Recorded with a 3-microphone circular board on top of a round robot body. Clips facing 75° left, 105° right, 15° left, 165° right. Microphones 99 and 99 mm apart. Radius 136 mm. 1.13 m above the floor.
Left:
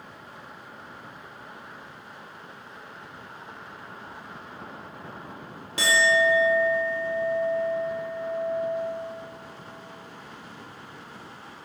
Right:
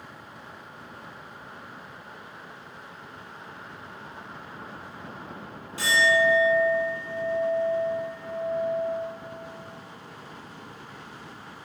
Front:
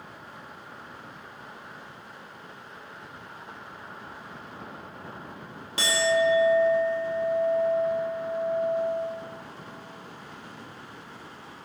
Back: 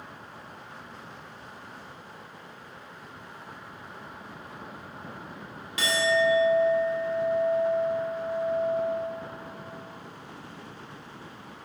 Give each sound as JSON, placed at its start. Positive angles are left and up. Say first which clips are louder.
{"t": 5.8, "sound": "a clink", "louder": "even, front 1 dB", "azimuth_deg": 65, "distance_m": 0.7}